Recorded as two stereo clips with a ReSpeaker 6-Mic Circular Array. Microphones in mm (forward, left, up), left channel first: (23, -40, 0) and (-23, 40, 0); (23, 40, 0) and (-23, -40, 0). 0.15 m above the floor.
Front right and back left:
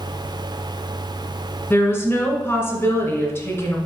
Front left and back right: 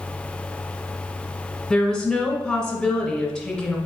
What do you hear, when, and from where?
1.7 s a woman speaking: 20° right, 1.7 m